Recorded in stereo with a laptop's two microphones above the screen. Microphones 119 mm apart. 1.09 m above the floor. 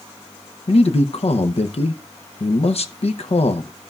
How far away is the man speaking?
About 0.8 m.